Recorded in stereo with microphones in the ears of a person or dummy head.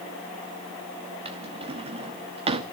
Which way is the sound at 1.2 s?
35° right (ahead or behind).